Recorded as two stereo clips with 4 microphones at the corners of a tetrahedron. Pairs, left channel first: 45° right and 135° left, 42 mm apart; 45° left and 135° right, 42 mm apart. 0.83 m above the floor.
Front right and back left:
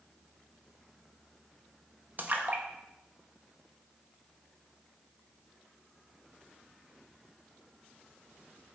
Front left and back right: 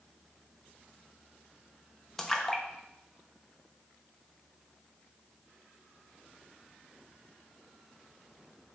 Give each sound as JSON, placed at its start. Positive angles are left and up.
{"t": 2.2, "sound": "a splash", "azimuth_deg": 120, "distance_m": 0.7}